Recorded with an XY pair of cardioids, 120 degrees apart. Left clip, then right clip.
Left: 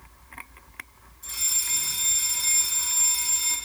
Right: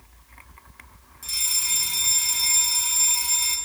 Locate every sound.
1.2 s a fire alarm: 65° right, 4.5 m